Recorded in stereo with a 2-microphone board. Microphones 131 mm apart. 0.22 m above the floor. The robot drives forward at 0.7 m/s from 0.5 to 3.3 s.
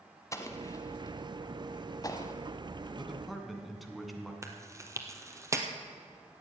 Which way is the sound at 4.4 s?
25° right (ahead or behind).